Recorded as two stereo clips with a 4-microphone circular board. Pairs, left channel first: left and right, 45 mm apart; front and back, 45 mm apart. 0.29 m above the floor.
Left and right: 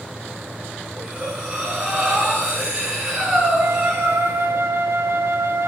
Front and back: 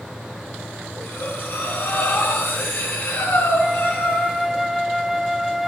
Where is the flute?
100° right, 0.6 m.